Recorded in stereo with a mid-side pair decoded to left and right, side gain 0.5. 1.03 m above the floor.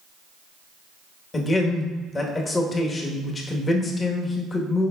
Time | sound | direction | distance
1.3 | a man speaking | 35° left | 1.2 m